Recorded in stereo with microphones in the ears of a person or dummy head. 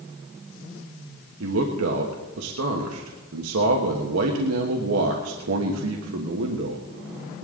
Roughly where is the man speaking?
Right.